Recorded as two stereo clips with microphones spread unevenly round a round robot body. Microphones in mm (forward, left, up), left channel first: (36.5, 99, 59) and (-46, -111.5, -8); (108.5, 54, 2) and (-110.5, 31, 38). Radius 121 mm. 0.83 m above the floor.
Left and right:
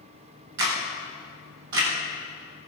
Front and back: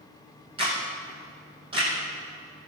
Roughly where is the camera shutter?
Right.